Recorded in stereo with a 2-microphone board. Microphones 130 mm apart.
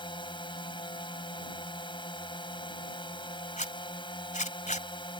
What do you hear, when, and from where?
0.0 s a drone: 40° left (ahead or behind)
3.6 s a zipper: 75° left (ahead or behind)